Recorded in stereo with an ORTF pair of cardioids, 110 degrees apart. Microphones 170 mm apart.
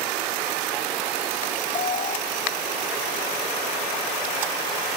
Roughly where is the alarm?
Ahead left.